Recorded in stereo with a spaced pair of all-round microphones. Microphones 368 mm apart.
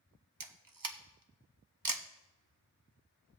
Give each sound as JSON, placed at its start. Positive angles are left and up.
{"t": 0.4, "sound": "a camera shutter", "side_deg": -65, "distance_m": 0.7}